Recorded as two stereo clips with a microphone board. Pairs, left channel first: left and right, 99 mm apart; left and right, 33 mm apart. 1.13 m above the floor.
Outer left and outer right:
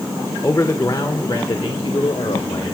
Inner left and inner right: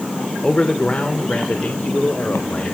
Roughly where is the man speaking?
Left.